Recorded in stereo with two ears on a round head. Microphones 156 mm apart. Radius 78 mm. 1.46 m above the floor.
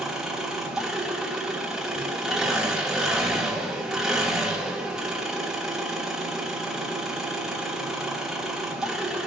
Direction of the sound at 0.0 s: 5° right (ahead or behind).